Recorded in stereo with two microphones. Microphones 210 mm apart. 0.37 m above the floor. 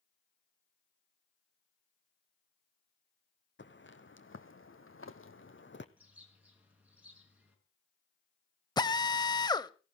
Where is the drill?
20° left (ahead or behind), 0.7 m.